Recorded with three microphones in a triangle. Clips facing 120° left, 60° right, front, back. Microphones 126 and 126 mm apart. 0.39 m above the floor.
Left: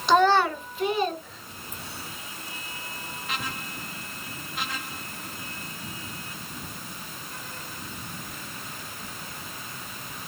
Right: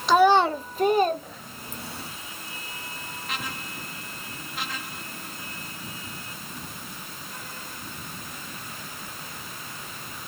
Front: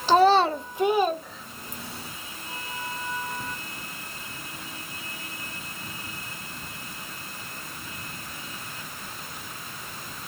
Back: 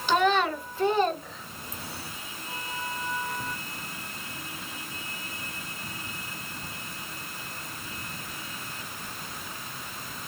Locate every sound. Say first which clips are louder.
0.1 s a child speaking: right 2 dB, front 6 dB; 30° left, 0.5 m; by 2.1 s 95° right, 1.4 m